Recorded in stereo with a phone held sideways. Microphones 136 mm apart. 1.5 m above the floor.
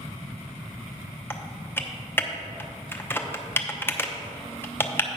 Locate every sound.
1.3 s typing on a keyboard: 15° left (ahead or behind), 0.6 m